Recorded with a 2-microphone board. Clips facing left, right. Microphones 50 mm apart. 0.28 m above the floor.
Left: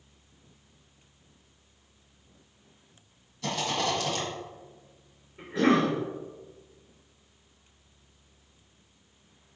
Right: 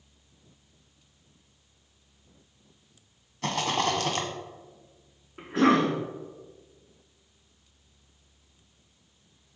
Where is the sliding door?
I don't hear a sliding door.